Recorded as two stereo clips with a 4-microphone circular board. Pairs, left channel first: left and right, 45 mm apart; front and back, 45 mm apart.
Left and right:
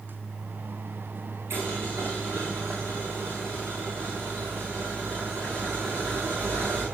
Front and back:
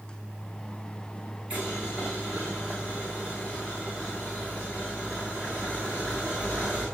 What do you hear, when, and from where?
1.5 s boiling: 120° right, 3 m